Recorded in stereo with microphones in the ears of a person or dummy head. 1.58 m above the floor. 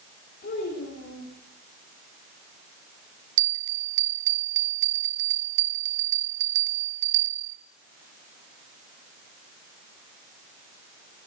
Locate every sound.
0.4 s a child speaking: 55° left (ahead or behind), 5 m
3.4 s a bell: 75° right (ahead or behind), 1.0 m